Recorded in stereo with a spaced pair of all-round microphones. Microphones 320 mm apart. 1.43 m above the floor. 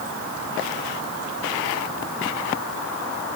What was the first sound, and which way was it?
Only background noise.